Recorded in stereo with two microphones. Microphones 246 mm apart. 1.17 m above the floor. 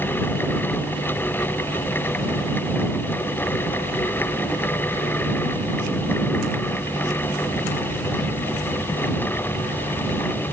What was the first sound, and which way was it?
Only background noise.